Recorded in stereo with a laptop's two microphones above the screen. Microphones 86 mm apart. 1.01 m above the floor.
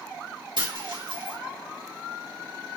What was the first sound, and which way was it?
A dropped coin, 65° right (ahead or behind).